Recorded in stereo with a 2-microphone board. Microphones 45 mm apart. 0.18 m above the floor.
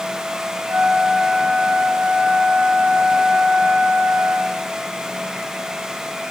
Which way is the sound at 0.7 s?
70° right (ahead or behind).